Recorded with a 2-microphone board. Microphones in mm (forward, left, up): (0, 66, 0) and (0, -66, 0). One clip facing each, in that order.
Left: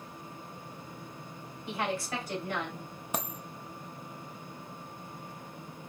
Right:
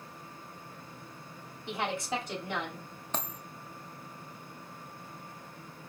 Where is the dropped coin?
10° left (ahead or behind), 0.7 m.